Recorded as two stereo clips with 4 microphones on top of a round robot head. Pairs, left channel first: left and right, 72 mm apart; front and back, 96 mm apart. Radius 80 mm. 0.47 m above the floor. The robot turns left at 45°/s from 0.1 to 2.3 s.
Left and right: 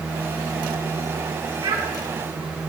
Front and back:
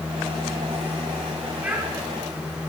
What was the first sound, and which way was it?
A child speaking, 105° right.